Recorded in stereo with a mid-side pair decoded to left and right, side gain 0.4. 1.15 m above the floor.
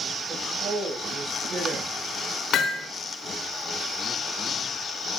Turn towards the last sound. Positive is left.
turn(degrees=65)